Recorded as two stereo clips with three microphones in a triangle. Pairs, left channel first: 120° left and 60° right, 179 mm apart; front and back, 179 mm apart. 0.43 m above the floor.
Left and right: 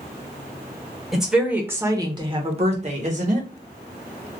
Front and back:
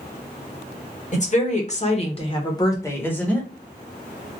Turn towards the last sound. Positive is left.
turn(degrees=-85)